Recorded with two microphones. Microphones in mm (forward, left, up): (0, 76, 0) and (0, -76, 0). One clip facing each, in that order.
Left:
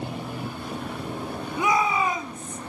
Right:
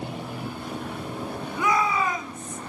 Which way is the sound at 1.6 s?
20° left (ahead or behind).